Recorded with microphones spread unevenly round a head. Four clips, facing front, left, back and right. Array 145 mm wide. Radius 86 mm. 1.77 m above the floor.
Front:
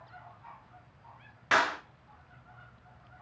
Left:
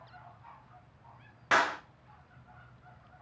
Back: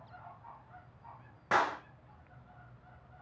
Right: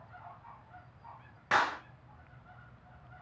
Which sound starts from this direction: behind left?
A clap, at 1.5 s.